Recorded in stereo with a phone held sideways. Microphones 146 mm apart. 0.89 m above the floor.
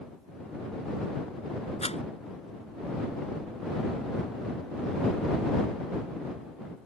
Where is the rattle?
45° left (ahead or behind).